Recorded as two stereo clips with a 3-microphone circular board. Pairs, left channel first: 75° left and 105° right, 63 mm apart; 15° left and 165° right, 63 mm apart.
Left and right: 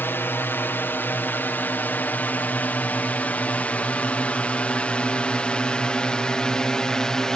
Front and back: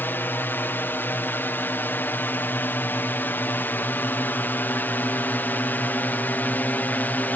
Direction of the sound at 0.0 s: 50° left.